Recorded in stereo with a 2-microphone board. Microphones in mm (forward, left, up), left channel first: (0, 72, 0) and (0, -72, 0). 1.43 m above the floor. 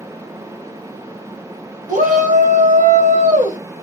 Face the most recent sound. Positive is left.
turn(degrees=-70)  # may be behind; listen again after turning